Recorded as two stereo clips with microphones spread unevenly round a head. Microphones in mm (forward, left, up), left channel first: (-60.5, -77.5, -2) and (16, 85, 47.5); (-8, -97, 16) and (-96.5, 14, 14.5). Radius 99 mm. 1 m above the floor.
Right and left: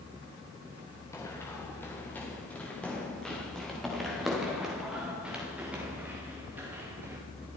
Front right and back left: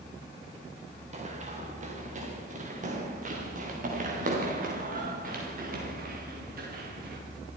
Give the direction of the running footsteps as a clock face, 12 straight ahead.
6 o'clock.